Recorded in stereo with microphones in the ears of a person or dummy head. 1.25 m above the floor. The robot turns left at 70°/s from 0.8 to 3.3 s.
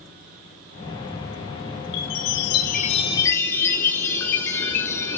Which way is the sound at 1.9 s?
110° left.